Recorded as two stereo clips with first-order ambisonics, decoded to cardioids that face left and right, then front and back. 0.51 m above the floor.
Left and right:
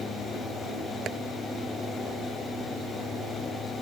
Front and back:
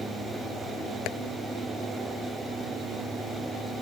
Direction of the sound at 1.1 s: 30° right.